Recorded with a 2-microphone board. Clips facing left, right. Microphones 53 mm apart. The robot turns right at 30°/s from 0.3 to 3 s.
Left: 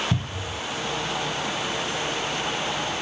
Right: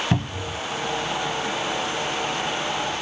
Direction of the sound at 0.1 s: 60° right (ahead or behind).